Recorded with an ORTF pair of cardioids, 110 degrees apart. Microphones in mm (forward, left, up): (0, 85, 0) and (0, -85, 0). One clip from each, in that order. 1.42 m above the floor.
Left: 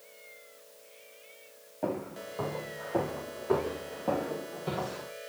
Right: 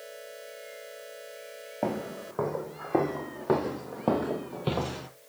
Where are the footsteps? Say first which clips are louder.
Right 2 dB; 60° right, 5.5 m; by 5.1 s 75° right, 2.5 m.